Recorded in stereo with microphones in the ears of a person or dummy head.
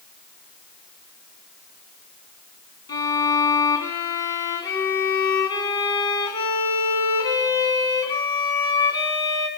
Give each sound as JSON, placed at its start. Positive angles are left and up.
{"t": 2.9, "sound": "a violin", "side_deg": 30, "distance_m": 2.0}